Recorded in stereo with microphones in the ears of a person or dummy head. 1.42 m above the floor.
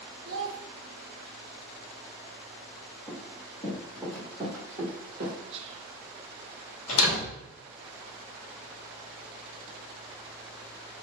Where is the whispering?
35° right (ahead or behind), 0.6 m.